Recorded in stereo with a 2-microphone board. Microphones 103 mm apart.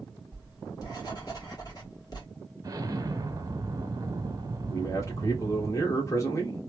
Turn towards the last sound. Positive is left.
turn(degrees=30)  # may be behind; listen again after turning